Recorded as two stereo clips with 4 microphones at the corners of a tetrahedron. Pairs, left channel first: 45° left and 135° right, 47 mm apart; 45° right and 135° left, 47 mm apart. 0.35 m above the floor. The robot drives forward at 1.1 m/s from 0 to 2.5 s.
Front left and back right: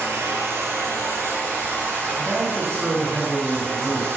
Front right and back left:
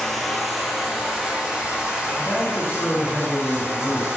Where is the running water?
125° right, 1.9 m; by 4.2 s 160° right, 4 m.